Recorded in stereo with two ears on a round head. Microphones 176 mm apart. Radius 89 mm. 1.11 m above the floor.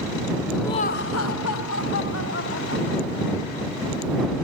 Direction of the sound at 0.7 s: 15° left (ahead or behind).